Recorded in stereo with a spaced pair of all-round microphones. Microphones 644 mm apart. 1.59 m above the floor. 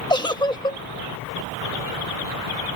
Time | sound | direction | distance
0.1 | a giggle | 5° left (ahead or behind) | ?